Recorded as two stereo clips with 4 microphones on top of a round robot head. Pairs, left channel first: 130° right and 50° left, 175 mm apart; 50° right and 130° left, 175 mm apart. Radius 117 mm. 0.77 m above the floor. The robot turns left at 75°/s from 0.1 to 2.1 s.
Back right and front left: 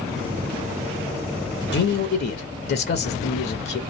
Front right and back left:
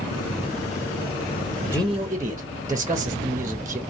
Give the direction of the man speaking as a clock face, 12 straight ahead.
4 o'clock.